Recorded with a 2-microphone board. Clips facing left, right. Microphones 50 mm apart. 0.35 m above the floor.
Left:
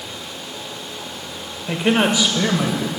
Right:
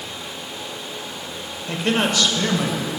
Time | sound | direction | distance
1.7 | a man speaking | 20° left (ahead or behind) | 1.3 m